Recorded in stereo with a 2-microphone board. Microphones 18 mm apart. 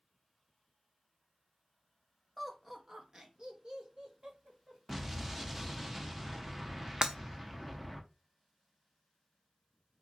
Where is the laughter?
5° right (ahead or behind), 0.7 m; by 4.8 s 60° right (ahead or behind), 1.6 m.